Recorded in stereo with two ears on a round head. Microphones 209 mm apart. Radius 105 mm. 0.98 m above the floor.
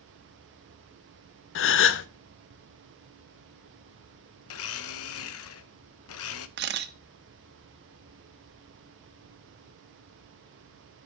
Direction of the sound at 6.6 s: 45° right (ahead or behind).